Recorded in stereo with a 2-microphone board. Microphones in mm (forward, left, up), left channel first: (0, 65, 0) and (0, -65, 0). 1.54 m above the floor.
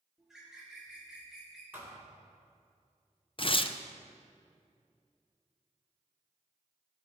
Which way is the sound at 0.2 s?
5° right (ahead or behind).